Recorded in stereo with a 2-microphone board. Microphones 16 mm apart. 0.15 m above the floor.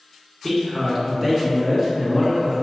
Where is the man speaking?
10° left (ahead or behind), 1.5 m; by 2.6 s 5° right (ahead or behind), 2 m.